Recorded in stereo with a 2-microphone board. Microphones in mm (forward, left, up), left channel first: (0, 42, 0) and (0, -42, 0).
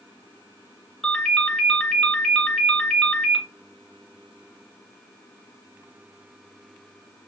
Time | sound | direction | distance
1.0 | a ringtone | 10° left (ahead or behind) | 1.7 m